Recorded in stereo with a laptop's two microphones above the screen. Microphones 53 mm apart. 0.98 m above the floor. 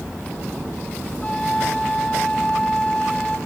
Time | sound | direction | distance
1.2 | a flute | 15° left (ahead or behind) | 1.4 m